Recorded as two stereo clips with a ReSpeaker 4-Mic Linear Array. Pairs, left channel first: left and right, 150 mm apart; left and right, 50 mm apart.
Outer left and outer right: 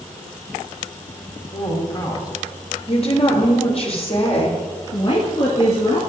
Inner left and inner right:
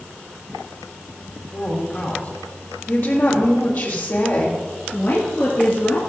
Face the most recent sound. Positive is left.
turn(degrees=45)  # may be behind; listen again after turning